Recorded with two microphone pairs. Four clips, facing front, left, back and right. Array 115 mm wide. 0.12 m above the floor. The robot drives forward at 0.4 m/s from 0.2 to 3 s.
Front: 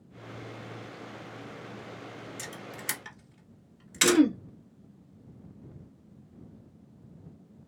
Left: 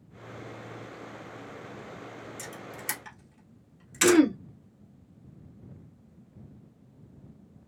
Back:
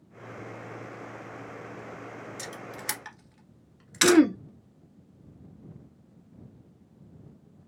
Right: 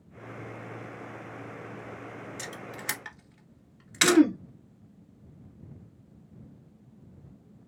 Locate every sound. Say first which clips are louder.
2.4 s a camera shutter: right 1 dB, back 2 dB; 115° right, 1.6 m; by 4.2 s 125° right, 1.6 m
4.0 s throat clearing: even, back 3 dB; 160° left, 0.6 m